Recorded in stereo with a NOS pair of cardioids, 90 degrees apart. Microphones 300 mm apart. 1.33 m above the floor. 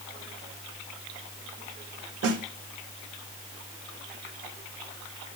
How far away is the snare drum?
About 1.1 m.